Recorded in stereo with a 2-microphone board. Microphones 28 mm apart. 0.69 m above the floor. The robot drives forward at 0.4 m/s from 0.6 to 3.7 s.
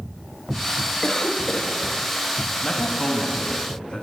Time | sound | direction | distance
1.0 | a cough | 15° left (ahead or behind) | 0.5 m
2.6 | a man speaking | 30° left (ahead or behind) | 0.8 m